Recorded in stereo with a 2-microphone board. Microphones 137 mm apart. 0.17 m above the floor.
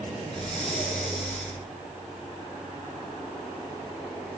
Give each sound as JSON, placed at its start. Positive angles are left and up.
{"t": 0.3, "sound": "breathing", "side_deg": 0, "distance_m": 3.5}